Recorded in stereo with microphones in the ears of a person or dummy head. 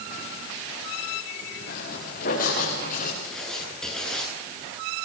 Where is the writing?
Centre (ahead or behind), 8.5 m.